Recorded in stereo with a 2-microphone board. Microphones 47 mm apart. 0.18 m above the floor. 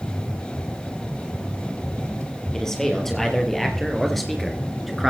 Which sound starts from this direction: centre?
A man speaking, at 2.5 s.